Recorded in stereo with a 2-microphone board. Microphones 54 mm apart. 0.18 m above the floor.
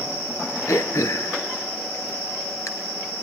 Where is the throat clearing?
70° left (ahead or behind), 1.7 m.